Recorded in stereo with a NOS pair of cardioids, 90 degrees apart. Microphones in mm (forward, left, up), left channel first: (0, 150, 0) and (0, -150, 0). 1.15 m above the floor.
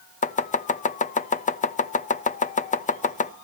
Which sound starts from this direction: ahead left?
Chopping, at 0.2 s.